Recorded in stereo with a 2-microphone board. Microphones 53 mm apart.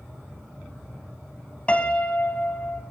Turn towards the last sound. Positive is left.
turn(degrees=20)  # may be behind; listen again after turning